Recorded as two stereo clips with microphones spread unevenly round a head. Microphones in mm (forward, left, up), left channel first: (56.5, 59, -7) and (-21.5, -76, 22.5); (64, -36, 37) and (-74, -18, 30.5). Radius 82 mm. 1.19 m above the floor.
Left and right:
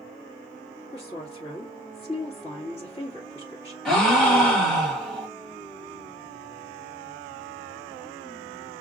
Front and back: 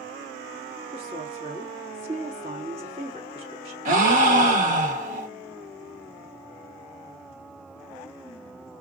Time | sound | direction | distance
0.9 | a woman speaking | 115° left | 2.5 m
3.9 | a gasp | 145° left | 1.3 m